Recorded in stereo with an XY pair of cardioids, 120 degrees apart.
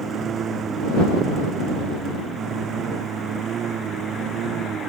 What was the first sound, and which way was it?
A lawn mower, 45° right.